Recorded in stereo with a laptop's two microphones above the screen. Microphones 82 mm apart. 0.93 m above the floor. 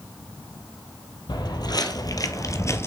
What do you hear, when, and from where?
1.3 s footsteps: 60° left (ahead or behind), 1.7 m; by 2.9 s 30° left (ahead or behind), 1.3 m